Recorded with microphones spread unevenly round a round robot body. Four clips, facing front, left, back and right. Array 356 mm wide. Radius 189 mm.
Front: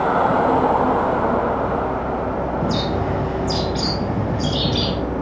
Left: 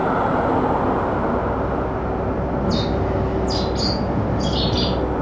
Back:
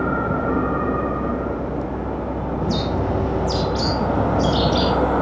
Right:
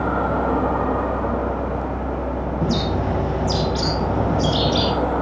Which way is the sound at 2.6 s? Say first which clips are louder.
Right 2 dB, front 1 dB; 100° right.